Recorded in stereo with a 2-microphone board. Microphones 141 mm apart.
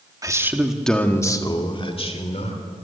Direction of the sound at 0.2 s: 25° right (ahead or behind).